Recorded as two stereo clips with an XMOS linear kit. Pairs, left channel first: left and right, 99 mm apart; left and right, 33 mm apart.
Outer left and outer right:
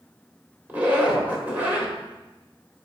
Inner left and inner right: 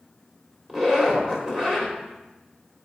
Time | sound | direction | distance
0.7 | a zipper | 20° right (ahead or behind) | 1.6 m